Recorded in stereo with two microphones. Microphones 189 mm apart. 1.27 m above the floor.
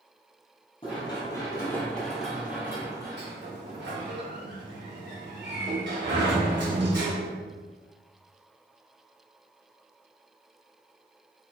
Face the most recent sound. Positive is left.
turn(degrees=-60)  # may be behind; listen again after turning